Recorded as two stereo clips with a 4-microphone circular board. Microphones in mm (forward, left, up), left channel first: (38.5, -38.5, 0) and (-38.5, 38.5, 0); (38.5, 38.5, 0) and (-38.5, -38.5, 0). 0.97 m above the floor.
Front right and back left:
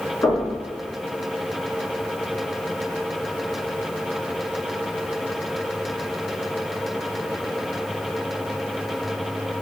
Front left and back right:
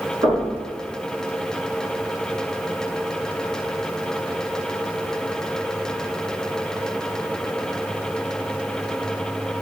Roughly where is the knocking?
Right.